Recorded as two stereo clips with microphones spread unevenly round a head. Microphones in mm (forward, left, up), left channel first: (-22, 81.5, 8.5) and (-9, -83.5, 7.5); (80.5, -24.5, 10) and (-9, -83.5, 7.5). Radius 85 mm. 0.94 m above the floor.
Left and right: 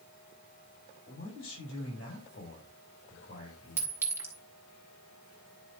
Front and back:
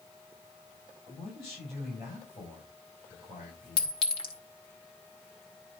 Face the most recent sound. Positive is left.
turn(degrees=-10)